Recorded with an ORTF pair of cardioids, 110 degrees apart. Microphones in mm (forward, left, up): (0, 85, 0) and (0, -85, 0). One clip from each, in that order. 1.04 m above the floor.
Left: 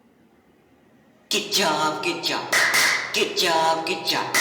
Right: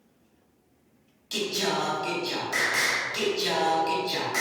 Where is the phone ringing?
I don't hear a phone ringing.